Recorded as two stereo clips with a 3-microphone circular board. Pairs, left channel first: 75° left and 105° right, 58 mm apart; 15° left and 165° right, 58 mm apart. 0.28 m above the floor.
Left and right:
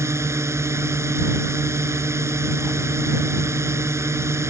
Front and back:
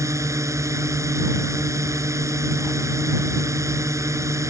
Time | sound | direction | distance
0.0 | a drone | 140° right | ?